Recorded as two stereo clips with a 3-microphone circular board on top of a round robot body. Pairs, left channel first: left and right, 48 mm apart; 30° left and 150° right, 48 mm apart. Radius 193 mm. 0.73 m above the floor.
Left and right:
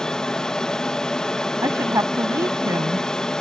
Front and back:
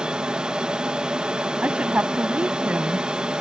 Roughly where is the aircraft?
Behind left.